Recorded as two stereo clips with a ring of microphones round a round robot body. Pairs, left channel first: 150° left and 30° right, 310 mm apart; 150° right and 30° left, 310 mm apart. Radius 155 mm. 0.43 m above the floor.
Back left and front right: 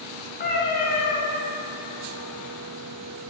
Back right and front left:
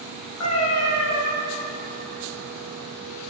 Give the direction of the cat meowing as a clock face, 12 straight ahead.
5 o'clock.